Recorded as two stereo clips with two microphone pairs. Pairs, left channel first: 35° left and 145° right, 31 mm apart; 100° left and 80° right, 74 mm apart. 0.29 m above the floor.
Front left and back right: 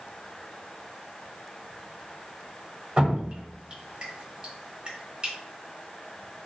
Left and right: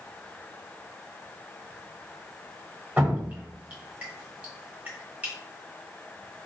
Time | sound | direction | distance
3.0 | dripping | 125° right | 1.0 m